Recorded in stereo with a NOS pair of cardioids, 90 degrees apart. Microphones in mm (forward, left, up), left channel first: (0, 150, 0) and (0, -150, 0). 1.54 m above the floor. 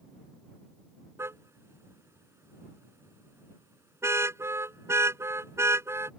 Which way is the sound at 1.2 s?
10° right.